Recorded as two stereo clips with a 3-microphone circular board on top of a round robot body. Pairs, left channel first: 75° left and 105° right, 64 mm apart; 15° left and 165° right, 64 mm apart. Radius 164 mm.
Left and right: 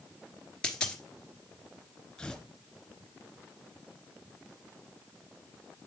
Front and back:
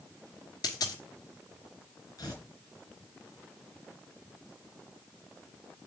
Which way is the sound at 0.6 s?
Straight ahead.